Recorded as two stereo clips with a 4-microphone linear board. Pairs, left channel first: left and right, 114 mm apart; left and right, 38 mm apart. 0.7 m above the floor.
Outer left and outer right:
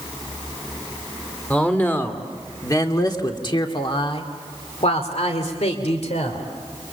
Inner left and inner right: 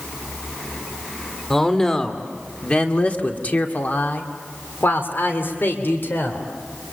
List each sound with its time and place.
1.5 s a man speaking: 10° left (ahead or behind), 2.5 m; by 6.4 s 70° left (ahead or behind), 3 m